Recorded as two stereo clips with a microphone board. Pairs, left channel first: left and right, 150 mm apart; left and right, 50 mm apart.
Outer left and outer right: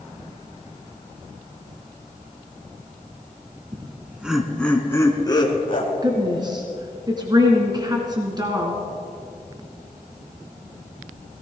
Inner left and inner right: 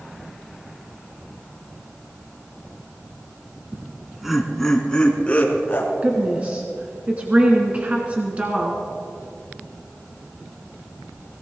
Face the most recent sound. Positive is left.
turn(degrees=-30)  # may be behind; listen again after turning